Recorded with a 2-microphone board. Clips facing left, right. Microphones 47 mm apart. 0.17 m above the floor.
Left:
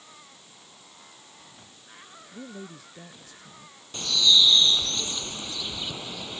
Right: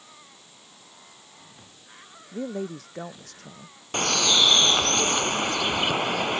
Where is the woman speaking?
65° right (ahead or behind).